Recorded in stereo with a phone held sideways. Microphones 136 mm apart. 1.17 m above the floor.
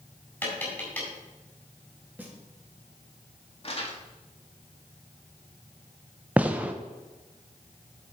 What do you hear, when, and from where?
0.4 s tapping: 10° left (ahead or behind), 4 m
2.2 s a snare drum: 10° right (ahead or behind), 1.9 m
3.6 s crumpling: 45° left (ahead or behind), 1.8 m
6.4 s a gunshot: 10° right (ahead or behind), 0.6 m